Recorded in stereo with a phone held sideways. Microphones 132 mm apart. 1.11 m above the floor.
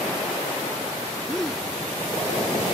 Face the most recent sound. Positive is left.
turn(degrees=5)  # may be behind; listen again after turning